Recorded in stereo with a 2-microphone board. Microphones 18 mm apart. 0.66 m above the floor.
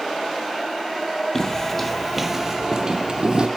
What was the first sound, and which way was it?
Footsteps, 25° left (ahead or behind).